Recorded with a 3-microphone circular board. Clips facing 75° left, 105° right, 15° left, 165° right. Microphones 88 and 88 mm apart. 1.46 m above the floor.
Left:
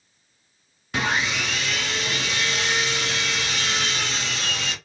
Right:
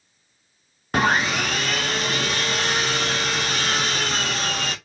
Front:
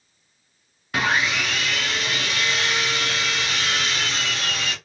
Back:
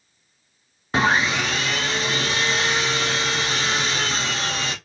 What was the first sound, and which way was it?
Sawing, 120° right.